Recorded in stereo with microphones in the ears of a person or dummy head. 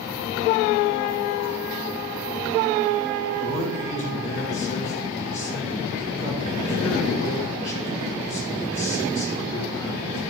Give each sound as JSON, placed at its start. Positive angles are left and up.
{"t": 3.4, "sound": "a man speaking", "side_deg": 35, "distance_m": 1.8}